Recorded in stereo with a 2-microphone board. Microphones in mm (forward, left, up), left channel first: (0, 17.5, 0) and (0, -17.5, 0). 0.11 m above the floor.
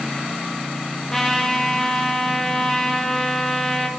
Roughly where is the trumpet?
Centre.